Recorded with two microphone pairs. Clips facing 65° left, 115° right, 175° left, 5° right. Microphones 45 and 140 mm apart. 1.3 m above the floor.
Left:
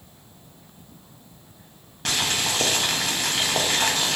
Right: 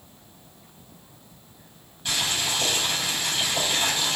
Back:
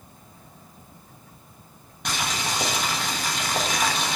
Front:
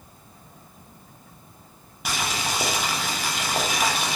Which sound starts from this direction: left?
Boiling, at 2.0 s.